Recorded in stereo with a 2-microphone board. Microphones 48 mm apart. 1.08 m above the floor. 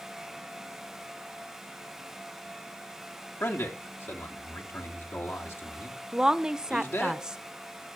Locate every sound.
3.4 s a man speaking: 75° left (ahead or behind), 3 m
6.1 s a woman speaking: 10° right (ahead or behind), 0.7 m